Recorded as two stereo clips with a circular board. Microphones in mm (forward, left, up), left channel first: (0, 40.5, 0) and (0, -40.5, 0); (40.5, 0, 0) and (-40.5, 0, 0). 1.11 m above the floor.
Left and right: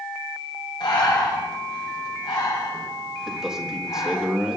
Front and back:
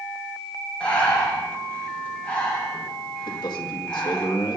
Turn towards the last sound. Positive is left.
turn(degrees=-5)